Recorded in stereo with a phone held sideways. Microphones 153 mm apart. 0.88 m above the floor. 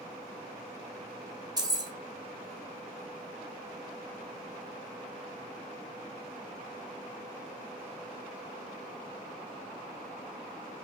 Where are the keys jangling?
25° right (ahead or behind), 0.6 m.